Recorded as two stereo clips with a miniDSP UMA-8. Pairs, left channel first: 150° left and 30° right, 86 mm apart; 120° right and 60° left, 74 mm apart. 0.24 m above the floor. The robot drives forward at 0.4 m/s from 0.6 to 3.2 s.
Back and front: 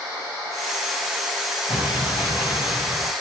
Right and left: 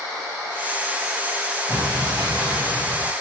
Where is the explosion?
125° left, 3.5 m; by 3.1 s 135° left, 3.5 m.